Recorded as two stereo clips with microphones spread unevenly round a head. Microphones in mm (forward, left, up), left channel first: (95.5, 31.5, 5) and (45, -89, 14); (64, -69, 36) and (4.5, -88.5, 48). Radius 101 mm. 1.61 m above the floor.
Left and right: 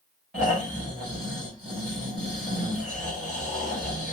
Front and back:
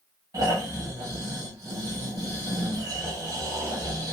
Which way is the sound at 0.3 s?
160° left.